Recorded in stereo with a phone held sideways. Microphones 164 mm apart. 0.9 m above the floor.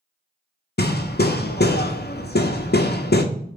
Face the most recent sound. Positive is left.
turn(degrees=90)